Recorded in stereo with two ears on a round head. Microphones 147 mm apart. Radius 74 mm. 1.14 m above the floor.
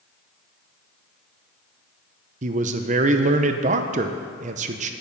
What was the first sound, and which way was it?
A man speaking, 40° right (ahead or behind).